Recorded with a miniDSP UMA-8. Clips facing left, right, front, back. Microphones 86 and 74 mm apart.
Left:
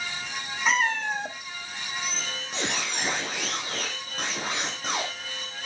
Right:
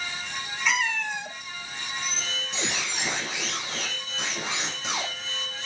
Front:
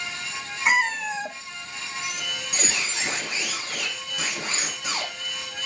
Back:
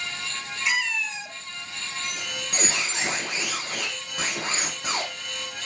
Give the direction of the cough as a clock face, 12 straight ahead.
No cough in this recording.